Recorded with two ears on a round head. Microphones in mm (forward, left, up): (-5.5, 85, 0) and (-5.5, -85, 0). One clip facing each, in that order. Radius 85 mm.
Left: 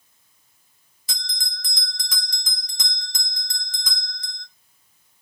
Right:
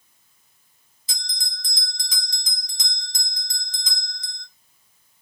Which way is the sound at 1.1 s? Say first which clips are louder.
Left 2 dB; 45° left (ahead or behind).